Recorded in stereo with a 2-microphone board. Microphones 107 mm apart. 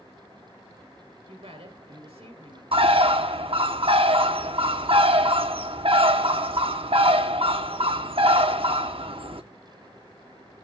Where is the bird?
60° right (ahead or behind), 0.9 m.